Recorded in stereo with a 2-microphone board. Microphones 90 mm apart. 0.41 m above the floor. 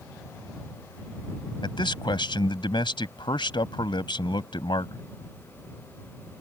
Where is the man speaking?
65° left (ahead or behind).